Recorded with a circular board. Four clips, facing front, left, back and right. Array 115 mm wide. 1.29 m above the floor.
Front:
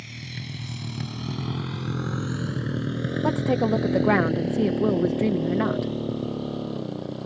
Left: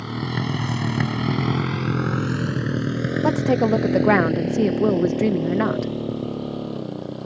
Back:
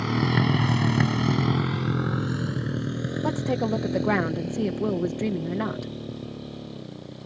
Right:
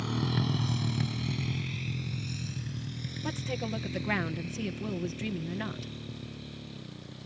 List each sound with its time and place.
0.0 s a motorcycle: 165° left; by 7.3 s 65° left
3.2 s a woman speaking: 80° left